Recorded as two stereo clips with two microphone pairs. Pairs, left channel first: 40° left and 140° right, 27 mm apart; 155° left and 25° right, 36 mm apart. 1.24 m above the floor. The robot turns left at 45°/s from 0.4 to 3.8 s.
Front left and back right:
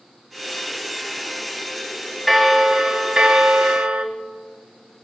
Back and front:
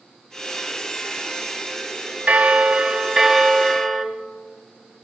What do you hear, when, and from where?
2.3 s a bell: 55° right, 0.9 m; by 4.0 s 125° right, 0.9 m